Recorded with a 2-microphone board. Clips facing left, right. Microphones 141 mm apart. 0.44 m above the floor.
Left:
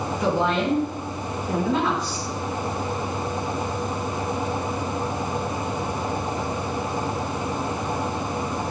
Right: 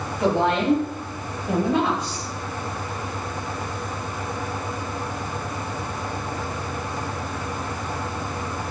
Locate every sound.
0.2 s a woman speaking: 60° right (ahead or behind), 3 m; by 2.3 s 55° right (ahead or behind), 2 m